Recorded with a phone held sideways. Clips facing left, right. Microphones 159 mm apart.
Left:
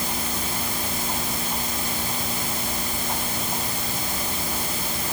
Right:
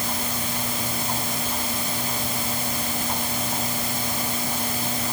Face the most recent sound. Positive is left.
No sound to turn to.